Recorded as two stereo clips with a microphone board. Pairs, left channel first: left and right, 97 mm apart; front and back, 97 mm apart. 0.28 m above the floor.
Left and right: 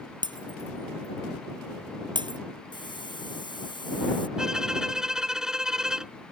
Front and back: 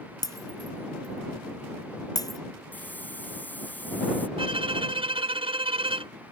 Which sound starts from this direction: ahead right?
Breaking glass, at 0.2 s.